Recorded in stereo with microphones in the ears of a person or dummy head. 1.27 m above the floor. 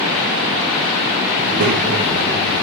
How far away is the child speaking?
About 0.9 m.